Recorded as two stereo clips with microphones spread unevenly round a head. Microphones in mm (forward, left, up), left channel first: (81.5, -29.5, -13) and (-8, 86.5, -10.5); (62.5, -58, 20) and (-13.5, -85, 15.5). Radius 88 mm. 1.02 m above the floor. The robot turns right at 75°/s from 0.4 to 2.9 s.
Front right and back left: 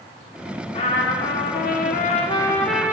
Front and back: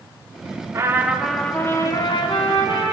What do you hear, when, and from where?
0.7 s a trumpet: 110° right, 1.0 m; by 2.9 s 50° left, 1.0 m